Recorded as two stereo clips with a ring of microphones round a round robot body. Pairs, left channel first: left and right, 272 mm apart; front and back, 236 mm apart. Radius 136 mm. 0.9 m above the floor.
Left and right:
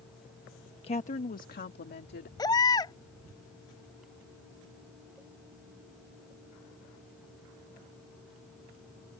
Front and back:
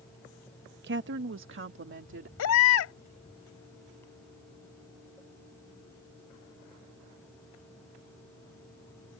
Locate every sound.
0.8 s a woman speaking: 155° left; by 2.3 s 145° left
2.4 s a baby crying: 15° left